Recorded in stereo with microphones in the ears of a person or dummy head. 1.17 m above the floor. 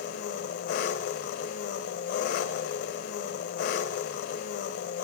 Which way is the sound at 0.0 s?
50° left (ahead or behind).